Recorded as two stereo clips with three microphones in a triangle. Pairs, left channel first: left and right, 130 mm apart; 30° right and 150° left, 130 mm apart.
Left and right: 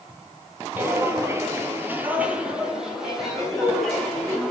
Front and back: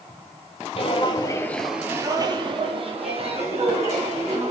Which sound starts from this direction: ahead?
Footsteps, at 0.8 s.